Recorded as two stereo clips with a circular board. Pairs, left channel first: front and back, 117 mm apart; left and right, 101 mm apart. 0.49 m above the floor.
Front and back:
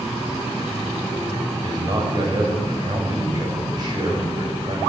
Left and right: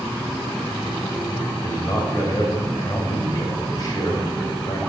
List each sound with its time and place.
1.6 s a man speaking: 135° left, 2 m